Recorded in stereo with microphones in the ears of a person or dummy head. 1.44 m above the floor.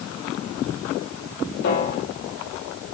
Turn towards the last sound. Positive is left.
turn(degrees=55)  # may be behind; listen again after turning